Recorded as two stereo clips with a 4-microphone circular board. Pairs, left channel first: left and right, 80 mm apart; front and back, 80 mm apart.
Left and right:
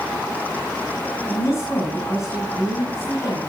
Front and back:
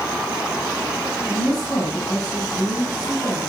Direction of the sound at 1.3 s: 45° left.